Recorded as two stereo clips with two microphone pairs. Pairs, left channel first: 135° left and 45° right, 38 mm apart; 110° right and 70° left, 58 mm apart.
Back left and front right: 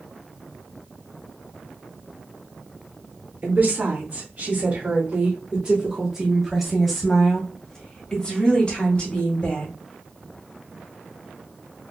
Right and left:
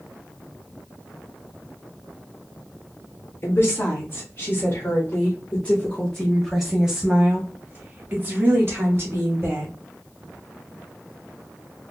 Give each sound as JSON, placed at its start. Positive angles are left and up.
{"t": 3.4, "sound": "a woman speaking", "azimuth_deg": -75, "distance_m": 2.0}